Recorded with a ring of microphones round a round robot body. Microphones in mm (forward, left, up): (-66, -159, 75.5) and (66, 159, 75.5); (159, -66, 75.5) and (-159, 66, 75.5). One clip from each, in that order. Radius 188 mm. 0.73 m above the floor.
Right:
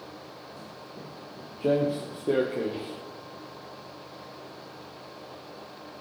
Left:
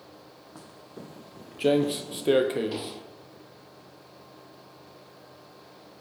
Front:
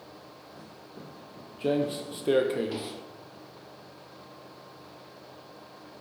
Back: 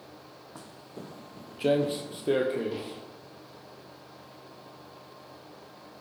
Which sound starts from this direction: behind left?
Footsteps, at 0.6 s.